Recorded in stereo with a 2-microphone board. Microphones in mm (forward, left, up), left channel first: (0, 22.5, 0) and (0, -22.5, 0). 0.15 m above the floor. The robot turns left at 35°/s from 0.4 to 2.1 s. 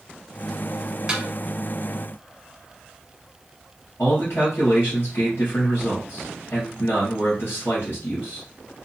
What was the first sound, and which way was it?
A snare drum, 20° right (ahead or behind).